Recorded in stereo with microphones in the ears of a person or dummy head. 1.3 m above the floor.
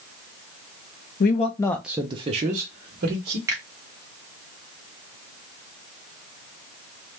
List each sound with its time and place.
1.2 s a man speaking: 50° left (ahead or behind), 0.6 m; by 3.4 s 50° right (ahead or behind), 1.3 m
3.5 s a finger snap: 15° right (ahead or behind), 1.1 m